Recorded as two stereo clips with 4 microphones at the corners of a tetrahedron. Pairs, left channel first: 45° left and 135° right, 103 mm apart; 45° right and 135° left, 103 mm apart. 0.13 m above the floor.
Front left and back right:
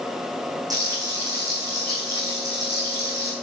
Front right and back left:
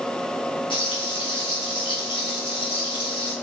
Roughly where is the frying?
Right.